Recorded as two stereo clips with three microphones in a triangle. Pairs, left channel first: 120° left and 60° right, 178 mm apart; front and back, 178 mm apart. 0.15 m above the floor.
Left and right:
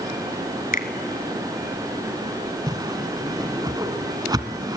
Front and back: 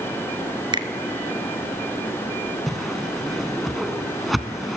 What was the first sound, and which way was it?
A finger snap, 125° left.